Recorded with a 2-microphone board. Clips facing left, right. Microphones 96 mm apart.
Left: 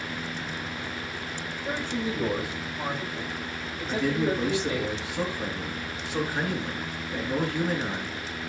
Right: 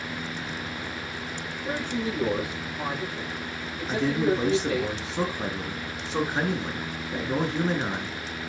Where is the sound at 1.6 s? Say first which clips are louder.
Right 1 dB; centre (ahead or behind), 5 m.